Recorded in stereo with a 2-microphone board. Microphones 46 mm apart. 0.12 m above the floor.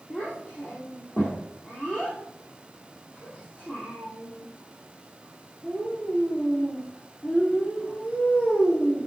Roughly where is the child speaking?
Left.